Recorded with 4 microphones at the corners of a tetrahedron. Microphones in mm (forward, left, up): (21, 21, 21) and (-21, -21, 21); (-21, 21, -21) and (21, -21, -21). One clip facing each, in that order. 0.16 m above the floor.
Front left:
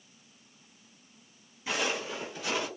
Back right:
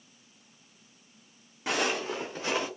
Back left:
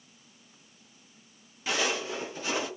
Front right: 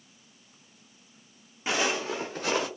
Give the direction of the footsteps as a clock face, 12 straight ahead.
4 o'clock.